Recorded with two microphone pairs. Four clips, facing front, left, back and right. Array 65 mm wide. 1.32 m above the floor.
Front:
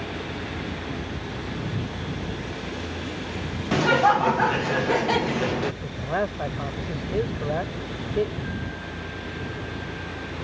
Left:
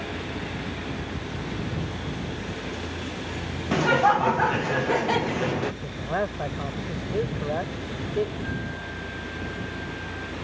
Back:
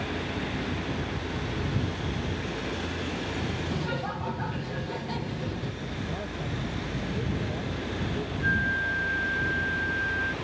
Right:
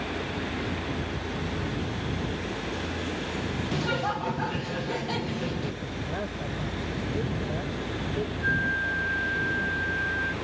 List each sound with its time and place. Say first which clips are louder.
3.7 s laughter: left 11 dB, front 13 dB; 40° left
5.8 s a man speaking: left 5 dB, front 8 dB; 40° left
8.4 s a flute: right 7 dB, back 7 dB; 130° right